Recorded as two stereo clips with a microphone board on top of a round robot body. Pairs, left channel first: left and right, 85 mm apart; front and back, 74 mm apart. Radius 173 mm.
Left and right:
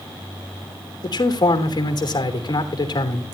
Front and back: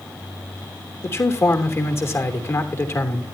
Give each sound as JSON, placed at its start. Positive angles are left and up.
{"t": 1.0, "sound": "a man speaking", "azimuth_deg": 55, "distance_m": 3.0}